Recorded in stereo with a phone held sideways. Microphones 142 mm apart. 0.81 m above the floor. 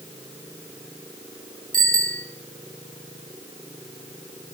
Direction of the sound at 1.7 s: 80° right.